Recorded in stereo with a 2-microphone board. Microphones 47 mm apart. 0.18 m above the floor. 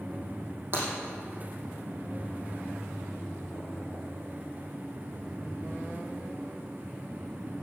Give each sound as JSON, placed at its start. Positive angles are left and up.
{"t": 0.7, "sound": "breaking glass", "side_deg": -40, "distance_m": 4.5}